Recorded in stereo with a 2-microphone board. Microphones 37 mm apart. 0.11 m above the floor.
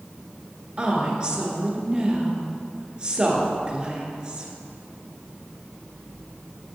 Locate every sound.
0.8 s a woman speaking: 25° right (ahead or behind), 1.6 m